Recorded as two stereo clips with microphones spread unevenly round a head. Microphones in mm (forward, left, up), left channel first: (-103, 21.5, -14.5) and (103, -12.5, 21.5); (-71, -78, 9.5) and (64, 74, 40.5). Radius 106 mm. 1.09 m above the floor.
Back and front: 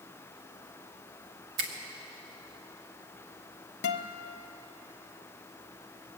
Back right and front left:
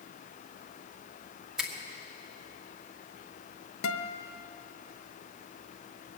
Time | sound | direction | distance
1.6 | a finger snap | 40° right | 1.5 m
3.8 | a guitar | 155° right | 0.7 m